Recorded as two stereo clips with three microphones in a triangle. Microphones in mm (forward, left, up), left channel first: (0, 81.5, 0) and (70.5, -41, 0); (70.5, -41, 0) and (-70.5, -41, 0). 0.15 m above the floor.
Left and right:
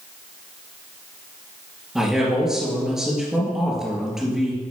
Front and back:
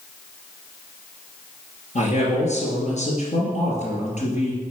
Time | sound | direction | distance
1.9 | a man speaking | 25° left | 3 m